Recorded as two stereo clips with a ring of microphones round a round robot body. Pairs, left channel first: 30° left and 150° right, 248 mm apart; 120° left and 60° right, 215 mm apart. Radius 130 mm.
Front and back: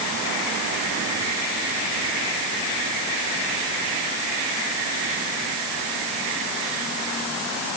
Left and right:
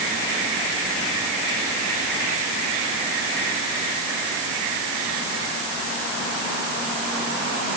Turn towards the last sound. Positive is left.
No sound to turn to.